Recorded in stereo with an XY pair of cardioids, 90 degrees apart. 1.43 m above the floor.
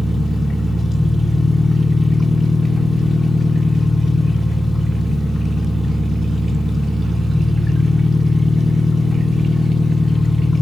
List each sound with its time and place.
0.0 s an engine running: 10° left, 2 m